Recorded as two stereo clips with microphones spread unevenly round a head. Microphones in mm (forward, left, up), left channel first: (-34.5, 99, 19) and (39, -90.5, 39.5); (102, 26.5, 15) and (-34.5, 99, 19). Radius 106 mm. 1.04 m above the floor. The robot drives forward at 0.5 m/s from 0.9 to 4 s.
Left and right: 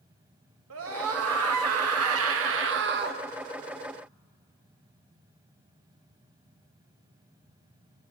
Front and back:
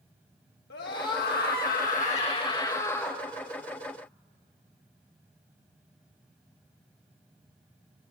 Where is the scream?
50° right, 1.2 m; by 3.2 s 115° right, 1.0 m.